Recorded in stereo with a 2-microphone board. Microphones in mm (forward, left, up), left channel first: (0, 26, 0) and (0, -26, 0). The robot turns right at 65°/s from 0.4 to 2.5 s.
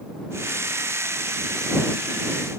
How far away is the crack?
No crack in this recording.